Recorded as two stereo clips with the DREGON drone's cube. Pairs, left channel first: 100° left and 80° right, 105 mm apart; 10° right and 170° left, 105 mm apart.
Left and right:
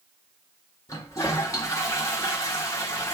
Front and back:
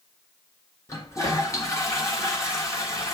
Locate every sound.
0.9 s a toilet flushing: 45° left, 1.5 m